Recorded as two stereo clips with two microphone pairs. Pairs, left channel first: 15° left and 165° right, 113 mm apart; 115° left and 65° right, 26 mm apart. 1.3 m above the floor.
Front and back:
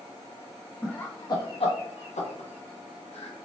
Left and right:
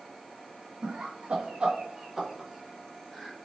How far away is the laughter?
About 0.6 m.